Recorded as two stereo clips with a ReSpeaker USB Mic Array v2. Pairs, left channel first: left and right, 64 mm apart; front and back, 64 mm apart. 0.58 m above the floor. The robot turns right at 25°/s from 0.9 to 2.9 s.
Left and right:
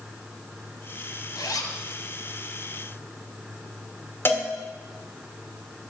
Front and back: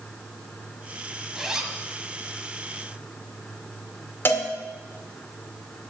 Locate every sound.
1.4 s a zipper: 100° left, 1.6 m; by 1.8 s 110° left, 1.6 m
4.2 s a cowbell: 45° left, 1.7 m